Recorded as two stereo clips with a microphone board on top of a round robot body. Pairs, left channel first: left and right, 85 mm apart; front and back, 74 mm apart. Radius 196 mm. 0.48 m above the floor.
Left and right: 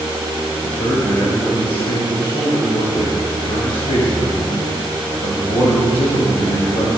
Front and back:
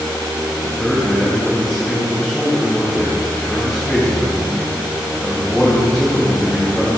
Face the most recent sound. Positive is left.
turn(degrees=90)